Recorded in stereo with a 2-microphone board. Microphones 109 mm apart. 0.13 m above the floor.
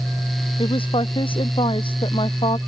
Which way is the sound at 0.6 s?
55° left (ahead or behind).